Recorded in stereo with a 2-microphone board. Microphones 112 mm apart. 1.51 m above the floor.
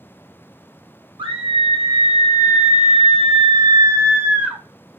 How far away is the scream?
About 1.2 m.